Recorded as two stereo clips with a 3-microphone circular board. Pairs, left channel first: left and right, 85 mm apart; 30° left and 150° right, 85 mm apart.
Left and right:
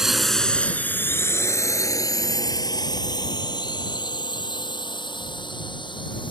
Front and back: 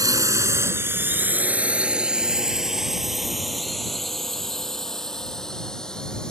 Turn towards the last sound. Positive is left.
turn(degrees=110)